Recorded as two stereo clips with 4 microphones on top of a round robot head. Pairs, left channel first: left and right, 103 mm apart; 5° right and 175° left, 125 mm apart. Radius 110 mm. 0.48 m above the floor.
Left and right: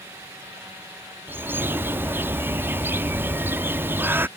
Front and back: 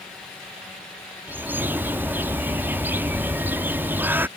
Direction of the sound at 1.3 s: 130° right.